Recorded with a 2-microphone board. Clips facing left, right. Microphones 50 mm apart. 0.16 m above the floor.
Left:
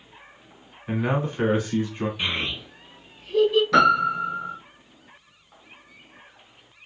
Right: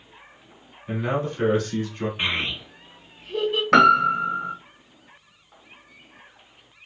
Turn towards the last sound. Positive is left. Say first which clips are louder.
# right 7 dB
turn(degrees=-65)  # may be behind; listen again after turning